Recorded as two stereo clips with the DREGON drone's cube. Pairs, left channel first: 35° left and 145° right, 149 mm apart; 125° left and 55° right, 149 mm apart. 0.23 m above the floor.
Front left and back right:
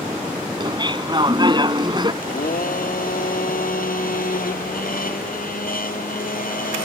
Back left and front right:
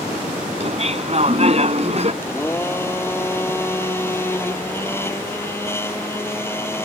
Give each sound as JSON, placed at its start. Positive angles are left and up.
{"t": 0.6, "sound": "laughter", "azimuth_deg": -90}
{"t": 2.2, "sound": "a blender", "azimuth_deg": 50}